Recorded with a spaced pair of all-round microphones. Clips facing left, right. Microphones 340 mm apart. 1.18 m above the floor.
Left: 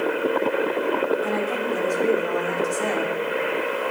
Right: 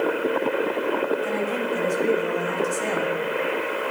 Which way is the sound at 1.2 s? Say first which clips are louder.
Left 1 dB; 70° left (ahead or behind).